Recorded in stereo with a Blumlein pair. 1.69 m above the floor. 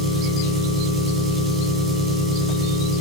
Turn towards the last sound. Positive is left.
turn(degrees=-15)